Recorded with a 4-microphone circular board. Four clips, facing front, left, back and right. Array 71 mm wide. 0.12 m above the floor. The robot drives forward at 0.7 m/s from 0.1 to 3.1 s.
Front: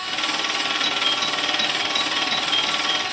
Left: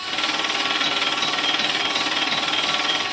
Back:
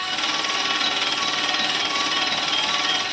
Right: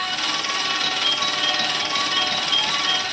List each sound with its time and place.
0.8 s a doorbell: 75° right, 4.5 m; by 3.0 s 95° right, 4.5 m